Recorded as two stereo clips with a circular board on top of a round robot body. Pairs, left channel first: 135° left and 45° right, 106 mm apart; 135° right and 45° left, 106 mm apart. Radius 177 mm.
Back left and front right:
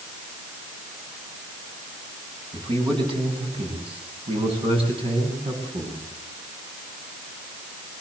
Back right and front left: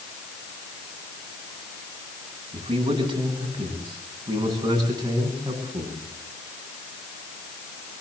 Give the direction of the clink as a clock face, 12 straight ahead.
I don't hear a clink.